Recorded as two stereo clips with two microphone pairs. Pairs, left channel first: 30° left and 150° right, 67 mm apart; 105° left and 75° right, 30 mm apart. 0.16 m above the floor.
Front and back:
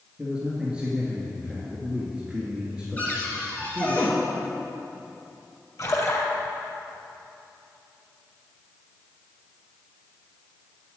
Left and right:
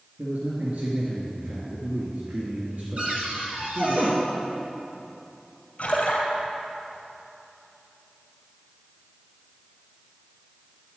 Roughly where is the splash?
Ahead left.